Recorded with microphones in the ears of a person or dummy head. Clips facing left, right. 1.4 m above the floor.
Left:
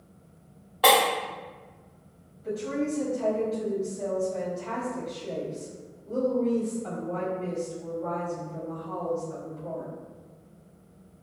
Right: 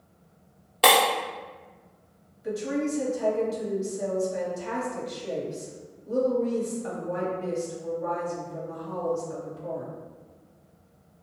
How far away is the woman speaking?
About 1.0 m.